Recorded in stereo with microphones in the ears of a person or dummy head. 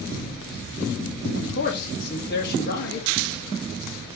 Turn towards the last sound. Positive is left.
turn(degrees=55)  # may be behind; listen again after turning